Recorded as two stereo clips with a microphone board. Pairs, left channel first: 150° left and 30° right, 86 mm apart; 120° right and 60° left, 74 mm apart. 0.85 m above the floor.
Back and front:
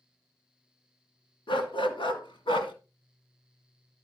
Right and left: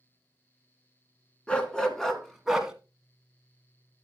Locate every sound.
1.5 s a dog barking: 165° left, 2.5 m; by 2.7 s 140° left, 2 m